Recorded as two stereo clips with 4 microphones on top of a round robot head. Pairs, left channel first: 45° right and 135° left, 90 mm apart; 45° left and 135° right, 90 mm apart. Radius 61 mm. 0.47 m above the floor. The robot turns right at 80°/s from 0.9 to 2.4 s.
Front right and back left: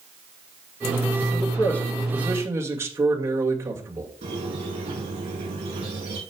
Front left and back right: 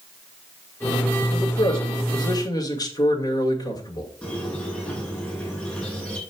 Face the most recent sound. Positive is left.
turn(degrees=115)